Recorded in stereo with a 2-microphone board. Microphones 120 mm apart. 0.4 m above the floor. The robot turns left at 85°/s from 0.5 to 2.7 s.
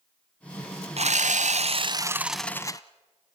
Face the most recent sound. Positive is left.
turn(degrees=150)